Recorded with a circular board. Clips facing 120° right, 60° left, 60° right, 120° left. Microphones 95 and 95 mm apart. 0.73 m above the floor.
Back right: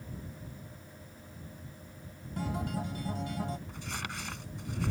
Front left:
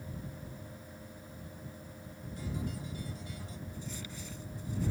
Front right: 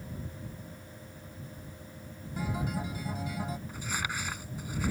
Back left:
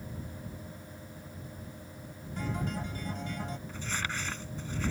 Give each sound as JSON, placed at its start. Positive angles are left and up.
{"t": 2.4, "sound": "a guitar", "azimuth_deg": -140}
{"t": 3.7, "sound": "crumpling", "azimuth_deg": -140}